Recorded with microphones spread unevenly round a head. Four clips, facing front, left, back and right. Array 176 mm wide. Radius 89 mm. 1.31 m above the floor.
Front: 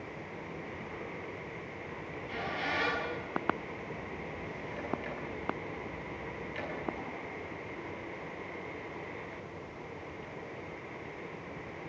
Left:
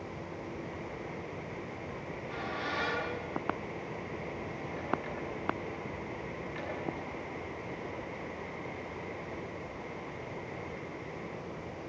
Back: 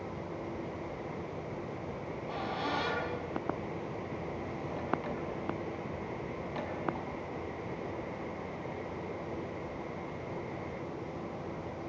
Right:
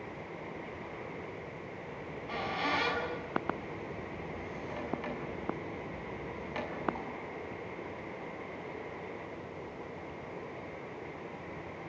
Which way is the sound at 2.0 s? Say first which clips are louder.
Right 4 dB, even; 145° right.